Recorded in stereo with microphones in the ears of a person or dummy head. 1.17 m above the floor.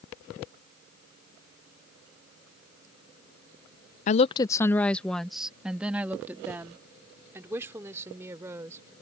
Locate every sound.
4.1 s a woman speaking: 45° left (ahead or behind); by 8.9 s 10° right (ahead or behind)